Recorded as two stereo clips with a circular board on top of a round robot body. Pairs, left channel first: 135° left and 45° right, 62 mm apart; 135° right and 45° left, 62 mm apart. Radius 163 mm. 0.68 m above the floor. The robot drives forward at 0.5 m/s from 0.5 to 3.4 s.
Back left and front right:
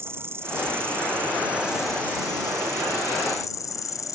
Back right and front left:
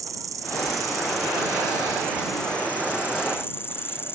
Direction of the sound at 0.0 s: 10° left.